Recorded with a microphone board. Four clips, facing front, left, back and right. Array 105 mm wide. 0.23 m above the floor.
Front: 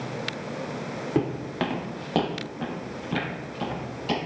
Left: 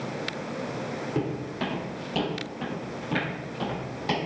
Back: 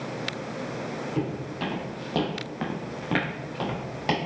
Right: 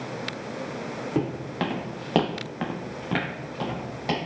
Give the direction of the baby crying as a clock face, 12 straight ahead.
I don't hear a baby crying.